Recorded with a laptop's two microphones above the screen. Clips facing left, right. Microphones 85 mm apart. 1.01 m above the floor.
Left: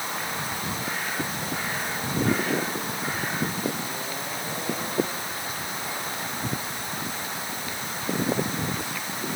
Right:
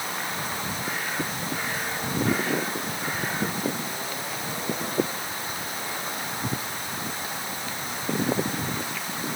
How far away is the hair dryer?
No hair dryer in this recording.